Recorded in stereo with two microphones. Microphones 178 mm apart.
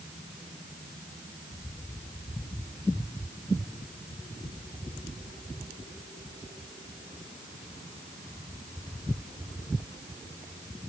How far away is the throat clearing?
No throat clearing in this recording.